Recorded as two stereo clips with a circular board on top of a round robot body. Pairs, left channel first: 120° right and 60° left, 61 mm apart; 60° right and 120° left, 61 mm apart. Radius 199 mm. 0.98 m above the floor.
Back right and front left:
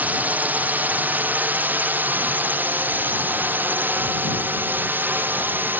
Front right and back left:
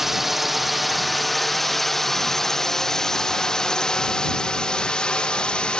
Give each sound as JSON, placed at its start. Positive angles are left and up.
{"t": 0.0, "sound": "a drone", "azimuth_deg": 40}